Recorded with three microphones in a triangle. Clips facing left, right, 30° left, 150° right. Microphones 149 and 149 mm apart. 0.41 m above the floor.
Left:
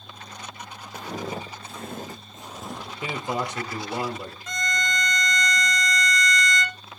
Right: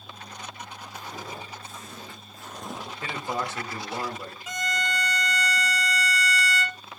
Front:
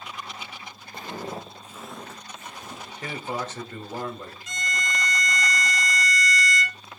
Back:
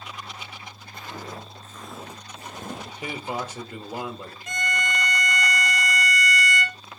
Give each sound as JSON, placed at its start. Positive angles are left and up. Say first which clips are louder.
{"t": 0.9, "sound": "footsteps", "louder": "left 7 dB, front 4 dB", "azimuth_deg": 85, "distance_m": 2.0}
{"t": 3.0, "sound": "a man speaking", "louder": "left 3 dB, even", "azimuth_deg": 145, "distance_m": 1.1}
{"t": 4.5, "sound": "a violin", "louder": "even, back 4 dB", "azimuth_deg": -170, "distance_m": 0.8}